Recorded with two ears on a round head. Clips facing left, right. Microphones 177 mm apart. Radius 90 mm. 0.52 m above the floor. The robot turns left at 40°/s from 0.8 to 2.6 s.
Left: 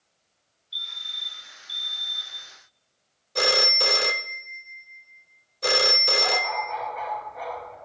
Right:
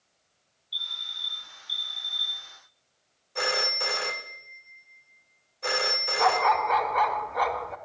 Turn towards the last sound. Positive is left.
turn(degrees=-85)